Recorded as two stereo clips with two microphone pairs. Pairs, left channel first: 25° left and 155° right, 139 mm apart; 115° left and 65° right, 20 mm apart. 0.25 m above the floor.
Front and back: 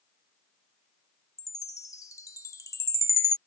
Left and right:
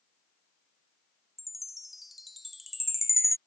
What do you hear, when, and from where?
1.4 s a chime: 5° left